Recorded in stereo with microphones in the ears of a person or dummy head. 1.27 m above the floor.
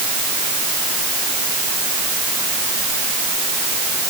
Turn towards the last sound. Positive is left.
No sound to turn to.